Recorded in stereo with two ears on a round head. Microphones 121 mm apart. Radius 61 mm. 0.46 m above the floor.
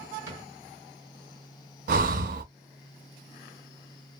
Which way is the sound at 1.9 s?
70° right (ahead or behind).